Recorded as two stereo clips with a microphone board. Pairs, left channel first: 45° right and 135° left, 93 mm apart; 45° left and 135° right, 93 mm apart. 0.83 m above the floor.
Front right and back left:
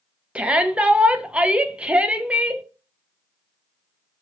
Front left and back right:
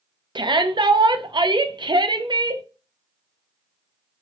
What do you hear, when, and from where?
0.3 s a shout: 150° right, 0.5 m